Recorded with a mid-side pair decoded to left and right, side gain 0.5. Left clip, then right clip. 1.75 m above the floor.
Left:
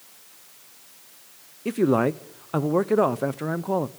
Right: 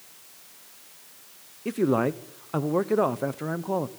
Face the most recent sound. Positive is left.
turn(degrees=20)